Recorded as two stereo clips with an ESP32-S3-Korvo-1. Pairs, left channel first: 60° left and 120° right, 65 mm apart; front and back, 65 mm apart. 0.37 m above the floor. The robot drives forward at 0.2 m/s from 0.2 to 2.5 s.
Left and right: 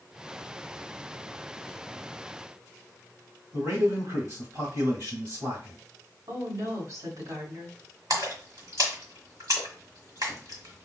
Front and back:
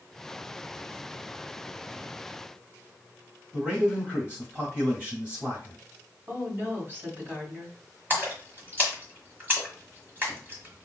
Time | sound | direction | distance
3.5 | a man speaking | 115° right | 1.8 m
6.3 | a woman speaking | 125° right | 2.5 m
8.1 | a splash | 125° right | 1.5 m